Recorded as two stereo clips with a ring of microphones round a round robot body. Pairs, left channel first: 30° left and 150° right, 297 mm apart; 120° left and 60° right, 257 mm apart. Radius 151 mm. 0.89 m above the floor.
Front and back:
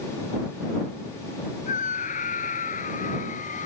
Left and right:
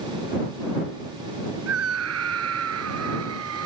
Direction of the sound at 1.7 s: 35° right.